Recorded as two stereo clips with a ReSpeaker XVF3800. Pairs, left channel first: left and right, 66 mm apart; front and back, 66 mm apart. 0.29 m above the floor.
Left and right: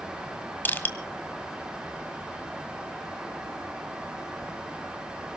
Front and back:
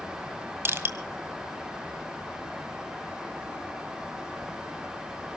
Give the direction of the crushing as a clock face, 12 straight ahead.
7 o'clock.